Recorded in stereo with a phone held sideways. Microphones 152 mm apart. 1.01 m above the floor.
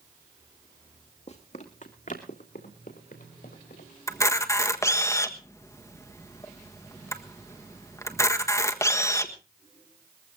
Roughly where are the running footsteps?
Left.